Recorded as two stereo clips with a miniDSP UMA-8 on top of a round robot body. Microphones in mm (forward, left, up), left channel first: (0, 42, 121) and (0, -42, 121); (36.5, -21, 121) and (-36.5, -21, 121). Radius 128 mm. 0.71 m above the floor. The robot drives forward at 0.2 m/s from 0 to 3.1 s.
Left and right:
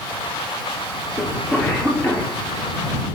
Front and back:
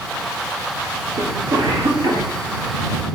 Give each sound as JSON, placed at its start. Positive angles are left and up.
{"t": 1.2, "sound": "a cough", "azimuth_deg": 165, "distance_m": 2.5}